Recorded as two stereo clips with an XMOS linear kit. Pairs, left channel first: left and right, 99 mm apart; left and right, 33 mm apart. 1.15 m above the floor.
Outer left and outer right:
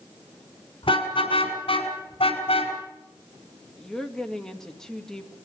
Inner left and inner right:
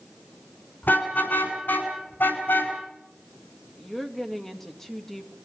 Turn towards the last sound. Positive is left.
turn(degrees=5)  # may be behind; listen again after turning